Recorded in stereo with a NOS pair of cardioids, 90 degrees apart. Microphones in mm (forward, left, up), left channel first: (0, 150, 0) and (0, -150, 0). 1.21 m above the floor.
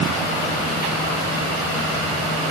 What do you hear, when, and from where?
Only background noise.